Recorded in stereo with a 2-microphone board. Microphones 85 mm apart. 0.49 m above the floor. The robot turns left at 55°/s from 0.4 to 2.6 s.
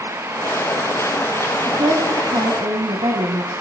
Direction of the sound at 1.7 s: 45° right.